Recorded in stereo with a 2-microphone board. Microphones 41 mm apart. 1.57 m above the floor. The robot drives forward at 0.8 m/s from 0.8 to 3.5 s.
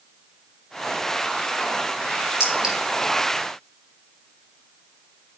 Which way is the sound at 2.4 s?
20° right (ahead or behind).